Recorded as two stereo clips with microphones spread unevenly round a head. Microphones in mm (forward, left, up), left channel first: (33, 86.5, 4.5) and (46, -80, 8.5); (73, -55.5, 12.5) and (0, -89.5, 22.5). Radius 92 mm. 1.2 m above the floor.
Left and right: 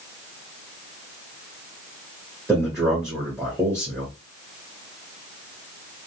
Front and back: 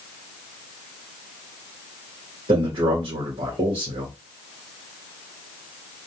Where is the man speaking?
170° right, 0.9 m.